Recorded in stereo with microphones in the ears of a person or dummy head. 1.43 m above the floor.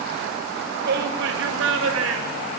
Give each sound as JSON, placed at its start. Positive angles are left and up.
{"t": 0.8, "sound": "a shout", "side_deg": -60, "distance_m": 2.5}